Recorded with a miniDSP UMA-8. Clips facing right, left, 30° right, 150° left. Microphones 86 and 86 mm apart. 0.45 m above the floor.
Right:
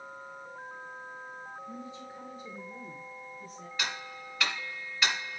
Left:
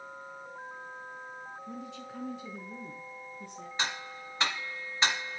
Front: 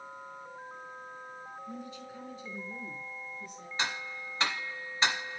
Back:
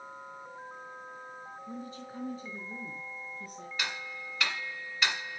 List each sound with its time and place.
1.7 s a woman speaking: 95° left, 4.5 m; by 3.7 s 105° left, 6.5 m
3.8 s ticking: 30° left, 1.5 m